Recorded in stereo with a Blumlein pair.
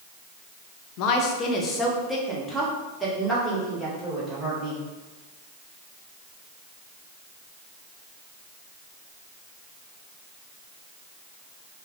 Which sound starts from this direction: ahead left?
A woman speaking, at 1.0 s.